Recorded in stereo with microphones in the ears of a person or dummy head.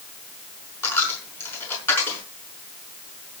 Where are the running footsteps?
I don't hear running footsteps.